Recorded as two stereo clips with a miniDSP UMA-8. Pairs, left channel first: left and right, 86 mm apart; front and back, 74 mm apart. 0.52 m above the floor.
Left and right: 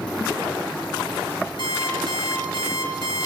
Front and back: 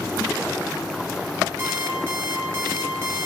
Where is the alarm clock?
120° left, 5 m.